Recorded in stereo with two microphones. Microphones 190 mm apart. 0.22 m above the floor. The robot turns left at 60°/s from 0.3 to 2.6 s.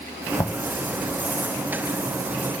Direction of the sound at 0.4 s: 20° left (ahead or behind).